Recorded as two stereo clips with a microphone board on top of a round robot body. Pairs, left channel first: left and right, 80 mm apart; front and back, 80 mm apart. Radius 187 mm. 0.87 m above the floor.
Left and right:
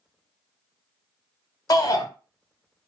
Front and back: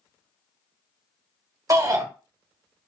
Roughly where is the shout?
Behind left.